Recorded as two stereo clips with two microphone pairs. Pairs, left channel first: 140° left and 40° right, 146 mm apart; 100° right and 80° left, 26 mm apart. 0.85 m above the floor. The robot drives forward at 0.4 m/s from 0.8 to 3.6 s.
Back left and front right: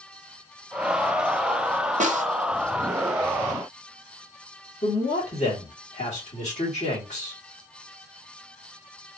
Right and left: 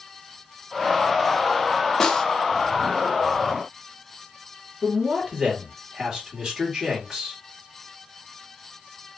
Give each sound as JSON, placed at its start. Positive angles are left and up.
{"t": 2.0, "sound": "a snare drum", "azimuth_deg": -30, "distance_m": 0.6}
{"t": 4.8, "sound": "a man speaking", "azimuth_deg": 135, "distance_m": 1.6}